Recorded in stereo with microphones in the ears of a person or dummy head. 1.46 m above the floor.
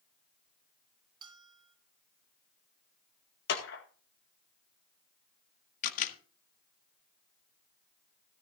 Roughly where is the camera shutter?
Left.